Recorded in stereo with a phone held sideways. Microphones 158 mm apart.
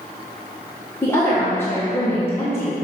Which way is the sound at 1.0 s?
15° left (ahead or behind).